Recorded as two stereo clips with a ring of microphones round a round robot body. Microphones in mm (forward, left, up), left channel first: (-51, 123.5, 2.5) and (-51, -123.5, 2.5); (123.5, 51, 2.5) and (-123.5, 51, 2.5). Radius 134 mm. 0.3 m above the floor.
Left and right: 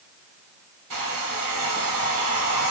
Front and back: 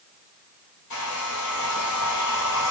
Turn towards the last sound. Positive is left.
turn(degrees=-50)